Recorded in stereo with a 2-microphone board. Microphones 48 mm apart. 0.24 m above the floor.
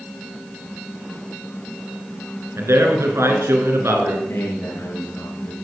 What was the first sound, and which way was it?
A man speaking, 65° right (ahead or behind).